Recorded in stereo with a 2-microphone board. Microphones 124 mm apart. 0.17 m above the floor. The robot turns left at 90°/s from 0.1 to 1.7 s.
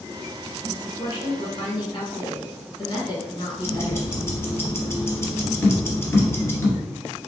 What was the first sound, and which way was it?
A woman speaking, 165° left.